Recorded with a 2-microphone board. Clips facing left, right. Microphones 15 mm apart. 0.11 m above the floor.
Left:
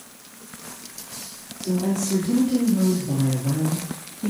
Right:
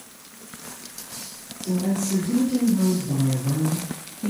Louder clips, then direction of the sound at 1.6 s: Left 1 dB; 65° left (ahead or behind).